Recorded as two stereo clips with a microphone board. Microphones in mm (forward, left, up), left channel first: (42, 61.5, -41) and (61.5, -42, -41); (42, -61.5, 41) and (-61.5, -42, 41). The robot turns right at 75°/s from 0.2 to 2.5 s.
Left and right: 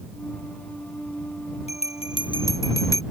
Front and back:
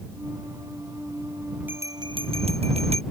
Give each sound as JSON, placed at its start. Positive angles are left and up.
{"t": 1.7, "sound": "a bell", "azimuth_deg": 95}